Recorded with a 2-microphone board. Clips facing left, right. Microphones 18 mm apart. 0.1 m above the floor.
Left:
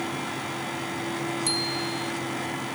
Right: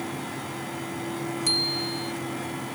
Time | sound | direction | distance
1.5 | a bicycle bell | 25° right (ahead or behind) | ?